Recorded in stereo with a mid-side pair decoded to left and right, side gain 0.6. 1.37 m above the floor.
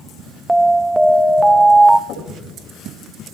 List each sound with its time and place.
0.5 s an alarm: 5° right, 0.7 m
2.1 s knocking: 65° left, 6.5 m